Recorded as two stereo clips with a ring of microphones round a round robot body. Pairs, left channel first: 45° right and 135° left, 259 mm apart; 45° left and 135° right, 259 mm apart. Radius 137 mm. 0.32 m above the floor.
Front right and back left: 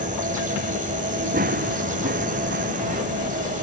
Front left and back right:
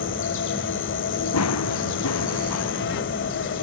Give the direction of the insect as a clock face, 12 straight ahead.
9 o'clock.